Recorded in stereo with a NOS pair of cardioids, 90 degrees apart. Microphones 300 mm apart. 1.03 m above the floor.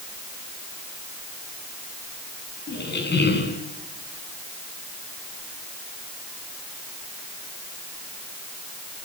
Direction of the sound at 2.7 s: 35° left.